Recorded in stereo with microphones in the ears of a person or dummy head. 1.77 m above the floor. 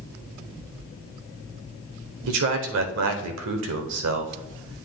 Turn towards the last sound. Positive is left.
turn(degrees=-75)  # may be behind; listen again after turning